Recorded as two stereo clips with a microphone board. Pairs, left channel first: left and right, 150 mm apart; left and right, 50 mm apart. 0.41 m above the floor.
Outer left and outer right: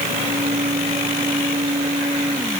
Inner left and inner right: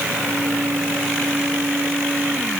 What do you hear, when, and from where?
Only background noise.